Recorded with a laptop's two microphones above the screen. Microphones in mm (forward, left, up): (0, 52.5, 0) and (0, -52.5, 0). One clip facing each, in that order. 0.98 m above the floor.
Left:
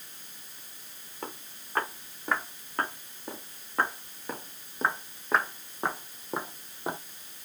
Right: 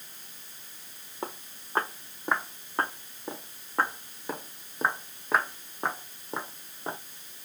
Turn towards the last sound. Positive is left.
turn(degrees=10)  # may be behind; listen again after turning